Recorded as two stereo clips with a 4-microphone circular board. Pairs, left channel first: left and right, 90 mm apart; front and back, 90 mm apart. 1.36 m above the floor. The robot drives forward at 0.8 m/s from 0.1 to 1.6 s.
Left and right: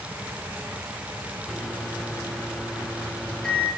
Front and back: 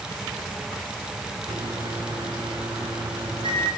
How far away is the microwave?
About 3.5 m.